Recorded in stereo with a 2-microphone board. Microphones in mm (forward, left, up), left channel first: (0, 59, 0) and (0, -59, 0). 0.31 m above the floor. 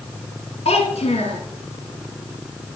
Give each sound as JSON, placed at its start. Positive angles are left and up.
{"t": 0.7, "sound": "a child speaking", "side_deg": 60, "distance_m": 2.0}